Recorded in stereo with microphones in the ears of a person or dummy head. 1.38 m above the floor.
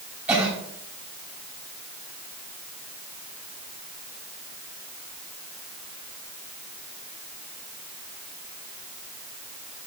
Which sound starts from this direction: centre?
A cough, at 0.3 s.